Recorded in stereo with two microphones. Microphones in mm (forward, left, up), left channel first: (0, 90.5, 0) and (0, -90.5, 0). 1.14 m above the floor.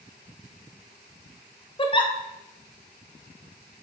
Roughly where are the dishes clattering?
I don't hear dishes clattering.